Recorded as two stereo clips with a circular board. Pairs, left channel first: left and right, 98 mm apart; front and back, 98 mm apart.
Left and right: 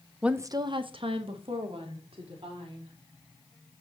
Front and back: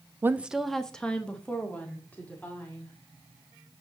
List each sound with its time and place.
0.2 s a woman speaking: 170° right, 0.5 m; by 2.9 s 70° right, 3.5 m